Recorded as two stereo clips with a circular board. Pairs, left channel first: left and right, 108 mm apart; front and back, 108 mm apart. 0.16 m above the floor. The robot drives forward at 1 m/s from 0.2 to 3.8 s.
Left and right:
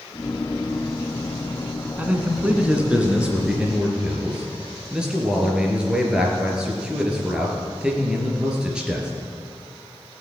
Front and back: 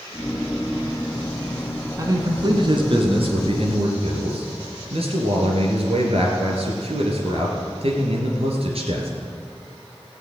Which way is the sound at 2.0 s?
155° right.